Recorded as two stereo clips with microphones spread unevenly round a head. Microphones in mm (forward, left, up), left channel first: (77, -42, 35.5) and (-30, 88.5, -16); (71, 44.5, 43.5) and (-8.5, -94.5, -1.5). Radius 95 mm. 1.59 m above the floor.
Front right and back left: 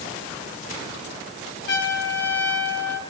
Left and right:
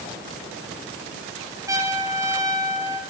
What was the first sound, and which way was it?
A trumpet, 45° right.